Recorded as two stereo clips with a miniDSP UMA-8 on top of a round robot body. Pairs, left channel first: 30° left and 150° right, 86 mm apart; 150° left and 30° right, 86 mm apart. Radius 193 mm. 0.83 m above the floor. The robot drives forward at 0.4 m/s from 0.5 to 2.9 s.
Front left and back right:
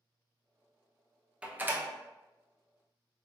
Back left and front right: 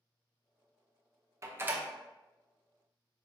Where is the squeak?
No squeak in this recording.